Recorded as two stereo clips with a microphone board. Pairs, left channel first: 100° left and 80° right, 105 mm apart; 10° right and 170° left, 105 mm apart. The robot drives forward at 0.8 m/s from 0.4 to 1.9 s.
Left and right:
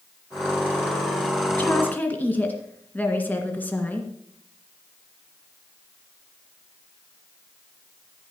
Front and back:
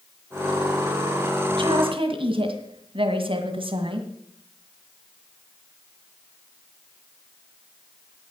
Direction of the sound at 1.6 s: 165° left.